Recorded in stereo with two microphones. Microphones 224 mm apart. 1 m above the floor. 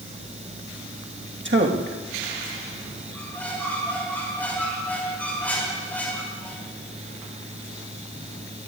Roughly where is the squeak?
Centre.